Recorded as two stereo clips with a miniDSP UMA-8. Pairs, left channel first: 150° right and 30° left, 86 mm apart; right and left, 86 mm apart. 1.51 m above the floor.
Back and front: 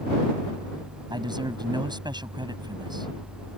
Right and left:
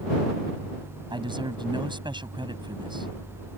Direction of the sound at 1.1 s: 65° left.